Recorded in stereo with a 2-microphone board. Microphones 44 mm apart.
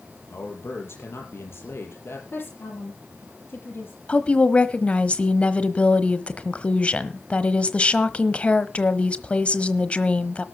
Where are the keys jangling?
No keys jangling in this recording.